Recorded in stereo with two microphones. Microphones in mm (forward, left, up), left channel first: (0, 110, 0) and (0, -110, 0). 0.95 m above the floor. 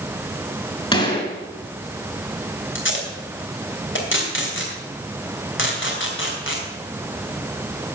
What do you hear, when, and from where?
0.9 s a gunshot: 25° left (ahead or behind), 3.5 m
2.8 s tape being pulled: 65° left (ahead or behind), 3 m